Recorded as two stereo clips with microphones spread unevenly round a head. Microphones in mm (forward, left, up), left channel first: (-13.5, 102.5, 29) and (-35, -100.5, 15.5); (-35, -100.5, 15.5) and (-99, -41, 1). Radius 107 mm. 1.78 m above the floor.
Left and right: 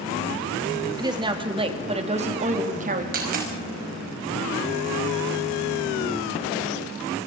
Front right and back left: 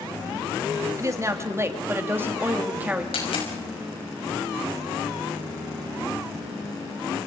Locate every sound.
1.0 s a woman speaking: 170° right, 3.5 m; by 3.0 s 150° right, 3.5 m
3.1 s a dropped coin: 45° right, 5.5 m